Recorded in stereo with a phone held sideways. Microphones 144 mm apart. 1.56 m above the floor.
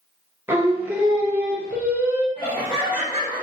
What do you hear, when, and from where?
0.5 s singing: 15° right (ahead or behind), 0.7 m
2.4 s laughter: 35° left (ahead or behind), 1.0 m